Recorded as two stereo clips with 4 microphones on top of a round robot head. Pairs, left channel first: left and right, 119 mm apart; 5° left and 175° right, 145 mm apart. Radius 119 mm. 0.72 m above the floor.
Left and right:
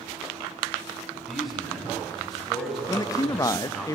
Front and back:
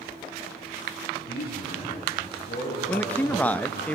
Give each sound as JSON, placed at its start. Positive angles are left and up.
{"t": 1.3, "sound": "a man speaking", "azimuth_deg": 0, "distance_m": 7.5}
{"t": 2.9, "sound": "a man speaking", "azimuth_deg": 75, "distance_m": 0.7}